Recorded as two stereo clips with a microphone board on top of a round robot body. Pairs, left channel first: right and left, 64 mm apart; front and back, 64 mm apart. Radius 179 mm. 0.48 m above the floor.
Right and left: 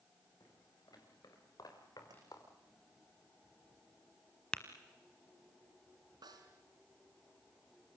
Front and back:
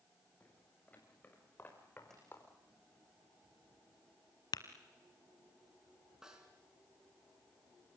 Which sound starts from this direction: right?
Footsteps, at 0.4 s.